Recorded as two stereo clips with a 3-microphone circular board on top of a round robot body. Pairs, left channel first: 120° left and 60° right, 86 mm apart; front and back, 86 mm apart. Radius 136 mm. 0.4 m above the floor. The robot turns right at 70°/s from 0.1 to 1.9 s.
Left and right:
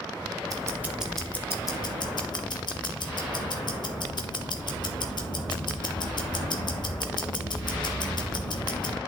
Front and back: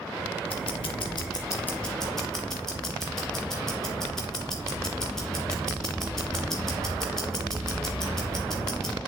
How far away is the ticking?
About 1.2 m.